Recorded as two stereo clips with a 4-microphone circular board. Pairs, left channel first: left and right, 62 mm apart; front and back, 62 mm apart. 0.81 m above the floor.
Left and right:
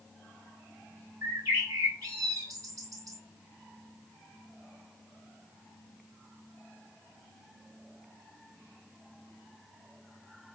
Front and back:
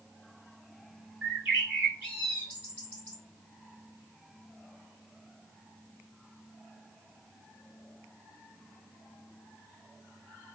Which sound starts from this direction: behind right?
A bird, at 1.2 s.